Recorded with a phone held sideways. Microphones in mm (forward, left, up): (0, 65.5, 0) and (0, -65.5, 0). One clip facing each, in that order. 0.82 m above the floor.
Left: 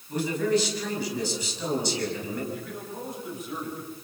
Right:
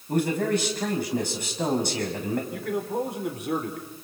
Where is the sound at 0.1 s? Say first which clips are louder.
Right 1 dB; 55° right (ahead or behind), 6 m.